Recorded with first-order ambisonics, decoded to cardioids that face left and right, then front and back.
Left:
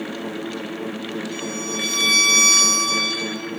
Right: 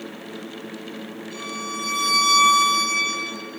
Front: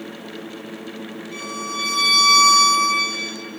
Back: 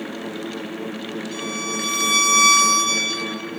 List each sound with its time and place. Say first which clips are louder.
1.3 s a violin: right 1 dB, even; 160° left, 2.5 m